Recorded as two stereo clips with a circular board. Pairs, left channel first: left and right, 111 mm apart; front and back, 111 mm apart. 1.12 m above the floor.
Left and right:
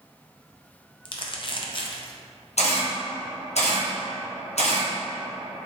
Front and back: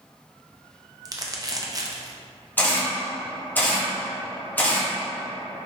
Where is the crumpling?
125° left, 0.5 m.